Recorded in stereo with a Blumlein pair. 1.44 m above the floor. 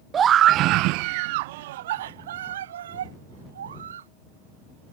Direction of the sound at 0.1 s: 20° right.